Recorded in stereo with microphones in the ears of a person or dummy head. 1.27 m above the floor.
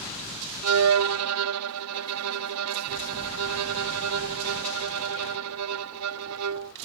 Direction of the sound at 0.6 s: 85° right.